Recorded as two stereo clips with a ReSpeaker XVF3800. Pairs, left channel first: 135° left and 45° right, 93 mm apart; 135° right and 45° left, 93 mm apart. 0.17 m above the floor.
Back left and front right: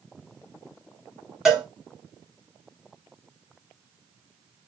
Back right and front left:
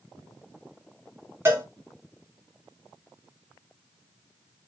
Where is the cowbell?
35° left, 1.5 m.